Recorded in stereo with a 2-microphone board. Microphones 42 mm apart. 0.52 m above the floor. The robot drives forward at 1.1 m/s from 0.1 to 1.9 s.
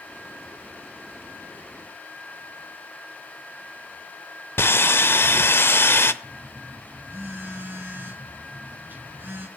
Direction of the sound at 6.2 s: 60° right (ahead or behind).